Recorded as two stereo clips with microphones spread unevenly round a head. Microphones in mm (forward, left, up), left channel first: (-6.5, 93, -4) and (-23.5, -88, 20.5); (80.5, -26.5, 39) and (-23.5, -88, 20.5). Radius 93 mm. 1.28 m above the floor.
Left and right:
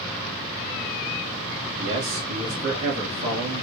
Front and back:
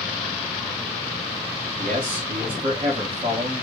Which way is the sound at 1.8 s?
110° right.